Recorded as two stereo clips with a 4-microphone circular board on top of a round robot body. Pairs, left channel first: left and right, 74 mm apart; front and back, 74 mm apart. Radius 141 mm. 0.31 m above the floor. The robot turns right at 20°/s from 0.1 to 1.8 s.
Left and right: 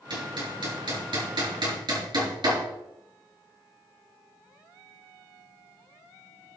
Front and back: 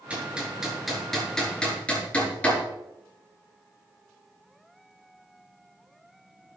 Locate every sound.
0.1 s hammering: 105° right, 7 m; by 2.6 s 70° right, 7 m